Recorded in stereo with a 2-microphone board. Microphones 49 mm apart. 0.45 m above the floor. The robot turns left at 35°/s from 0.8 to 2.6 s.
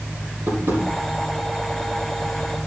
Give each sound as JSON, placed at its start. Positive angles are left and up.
{"t": 0.5, "sound": "tapping", "side_deg": -60, "distance_m": 5.5}